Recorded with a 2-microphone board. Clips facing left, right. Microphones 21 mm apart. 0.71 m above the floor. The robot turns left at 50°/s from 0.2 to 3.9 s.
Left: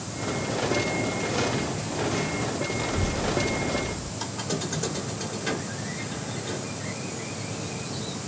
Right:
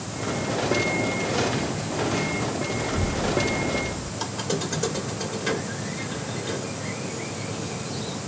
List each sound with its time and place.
2.8 s a child speaking: 65° left, 1.6 m; by 4.1 s 10° left, 1.6 m
4.2 s a squeak: 15° right (ahead or behind), 1.2 m